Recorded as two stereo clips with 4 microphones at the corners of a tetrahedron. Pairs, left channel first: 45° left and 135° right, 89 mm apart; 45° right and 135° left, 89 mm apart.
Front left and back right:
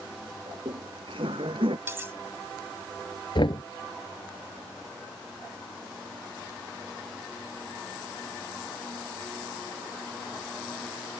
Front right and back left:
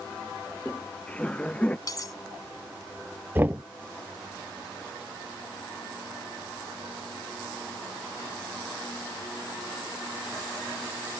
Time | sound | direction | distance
0.5 | laughter | 120° right | ?
1.9 | cutlery clinking | 75° right | ?
3.4 | knocking | 70° left | ?